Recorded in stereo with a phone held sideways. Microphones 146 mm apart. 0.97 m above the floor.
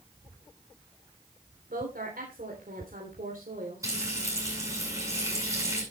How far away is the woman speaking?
About 3.5 m.